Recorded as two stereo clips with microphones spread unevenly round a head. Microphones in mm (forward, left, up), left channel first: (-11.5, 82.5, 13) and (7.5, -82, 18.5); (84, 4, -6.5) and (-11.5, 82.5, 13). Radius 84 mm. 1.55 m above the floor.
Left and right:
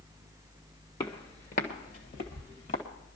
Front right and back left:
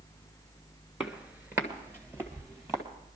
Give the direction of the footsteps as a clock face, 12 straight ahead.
9 o'clock.